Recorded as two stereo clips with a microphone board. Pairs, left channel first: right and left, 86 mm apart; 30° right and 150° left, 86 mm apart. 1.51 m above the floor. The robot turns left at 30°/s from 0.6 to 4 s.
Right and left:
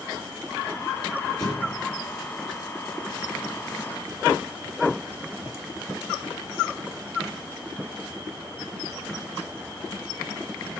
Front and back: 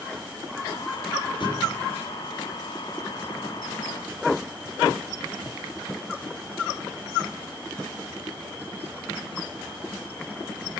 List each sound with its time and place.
1.4 s a thud: 55° right, 3.5 m; by 1.8 s 65° right, 3.5 m